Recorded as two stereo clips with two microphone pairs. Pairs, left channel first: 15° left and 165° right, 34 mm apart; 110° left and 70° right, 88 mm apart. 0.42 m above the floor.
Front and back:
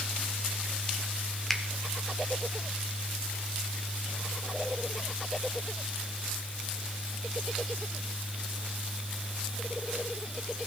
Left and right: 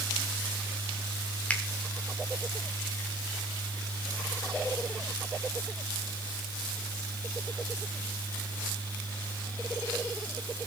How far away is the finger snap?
About 1.1 m.